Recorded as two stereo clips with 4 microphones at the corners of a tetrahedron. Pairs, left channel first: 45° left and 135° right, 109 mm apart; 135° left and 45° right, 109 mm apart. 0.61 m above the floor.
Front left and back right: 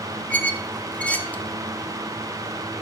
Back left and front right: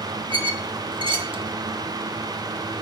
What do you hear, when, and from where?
0.3 s a squeak: 30° right, 0.6 m